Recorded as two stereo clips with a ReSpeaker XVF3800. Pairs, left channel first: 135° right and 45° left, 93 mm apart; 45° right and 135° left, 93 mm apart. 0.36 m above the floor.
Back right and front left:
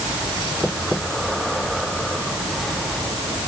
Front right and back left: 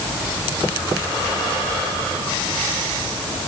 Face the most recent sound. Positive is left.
No sound to turn to.